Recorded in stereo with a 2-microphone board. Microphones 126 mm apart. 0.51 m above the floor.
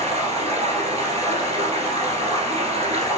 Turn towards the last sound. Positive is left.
turn(degrees=-55)  # may be behind; listen again after turning